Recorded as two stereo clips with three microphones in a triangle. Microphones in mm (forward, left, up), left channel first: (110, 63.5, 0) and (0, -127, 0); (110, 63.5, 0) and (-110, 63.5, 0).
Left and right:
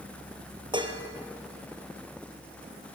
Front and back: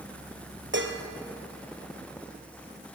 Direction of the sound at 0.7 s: 175° left.